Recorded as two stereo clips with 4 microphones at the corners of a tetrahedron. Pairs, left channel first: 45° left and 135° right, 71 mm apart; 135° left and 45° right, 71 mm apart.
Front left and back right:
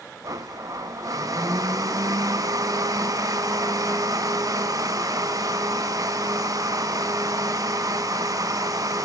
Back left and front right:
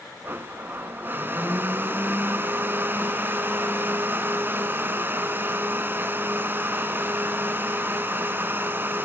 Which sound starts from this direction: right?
A blender, at 0.2 s.